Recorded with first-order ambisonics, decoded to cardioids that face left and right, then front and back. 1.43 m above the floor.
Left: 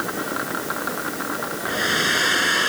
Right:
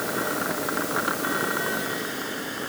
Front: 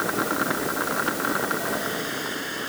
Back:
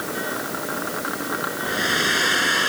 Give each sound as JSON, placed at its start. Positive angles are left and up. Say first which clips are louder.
{"t": 1.7, "sound": "a hair dryer", "louder": "left 8 dB, back 7 dB", "azimuth_deg": 130}